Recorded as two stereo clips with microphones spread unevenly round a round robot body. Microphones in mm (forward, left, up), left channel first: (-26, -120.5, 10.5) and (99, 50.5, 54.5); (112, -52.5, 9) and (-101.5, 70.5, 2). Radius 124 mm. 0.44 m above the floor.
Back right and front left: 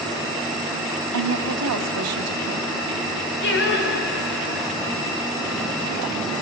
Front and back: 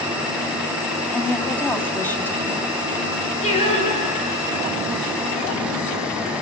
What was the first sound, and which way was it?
A woman speaking, 55° left.